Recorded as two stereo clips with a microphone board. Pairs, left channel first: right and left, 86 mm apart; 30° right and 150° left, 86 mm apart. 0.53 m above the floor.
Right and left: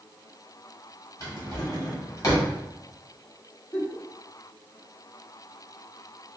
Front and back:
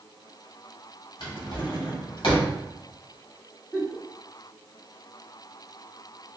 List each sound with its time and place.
1.2 s a drawer: 40° right, 1.2 m
3.7 s a giggle: 90° right, 1.4 m